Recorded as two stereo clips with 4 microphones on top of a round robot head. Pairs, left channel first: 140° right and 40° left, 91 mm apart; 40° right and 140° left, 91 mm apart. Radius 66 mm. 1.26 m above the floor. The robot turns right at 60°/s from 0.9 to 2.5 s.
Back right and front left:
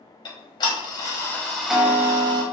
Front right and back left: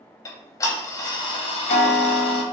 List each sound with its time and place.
0.2 s ticking: 95° right, 0.8 m; by 2.4 s 5° right, 0.8 m